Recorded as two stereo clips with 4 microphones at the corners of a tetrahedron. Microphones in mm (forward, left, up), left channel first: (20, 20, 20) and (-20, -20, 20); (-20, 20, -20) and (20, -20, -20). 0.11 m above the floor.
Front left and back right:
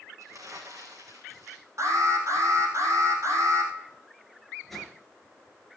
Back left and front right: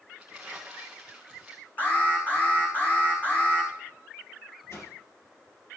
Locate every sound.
0.2 s crumpling: 120° right, 2.5 m
1.8 s an alarm: 165° right, 3.5 m
4.7 s a whoosh: 130° left, 2.5 m